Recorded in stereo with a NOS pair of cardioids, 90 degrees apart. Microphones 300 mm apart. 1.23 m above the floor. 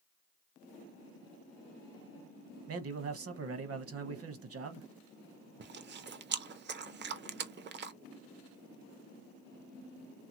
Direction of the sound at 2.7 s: 50° right.